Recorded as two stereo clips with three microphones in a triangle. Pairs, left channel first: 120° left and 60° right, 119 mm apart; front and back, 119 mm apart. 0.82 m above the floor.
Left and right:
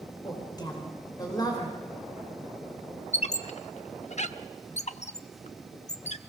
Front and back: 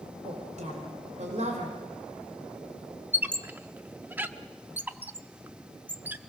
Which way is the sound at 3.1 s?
105° left.